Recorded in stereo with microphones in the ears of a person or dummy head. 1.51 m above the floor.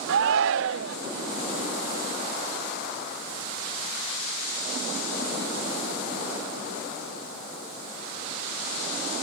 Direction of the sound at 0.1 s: 70° right (ahead or behind).